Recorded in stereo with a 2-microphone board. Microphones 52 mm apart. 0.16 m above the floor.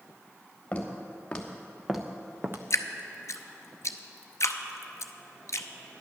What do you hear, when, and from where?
0.7 s footsteps: 25° left (ahead or behind), 2.5 m; by 2.6 s 50° right (ahead or behind), 0.8 m
2.7 s dripping: 70° left (ahead or behind), 0.7 m